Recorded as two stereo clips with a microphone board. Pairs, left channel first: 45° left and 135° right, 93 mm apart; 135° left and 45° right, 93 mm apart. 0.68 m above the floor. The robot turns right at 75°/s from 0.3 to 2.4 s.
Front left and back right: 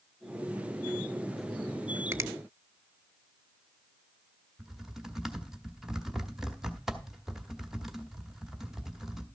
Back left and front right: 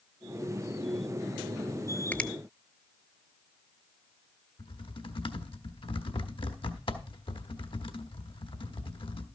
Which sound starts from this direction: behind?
A finger snap, at 2.1 s.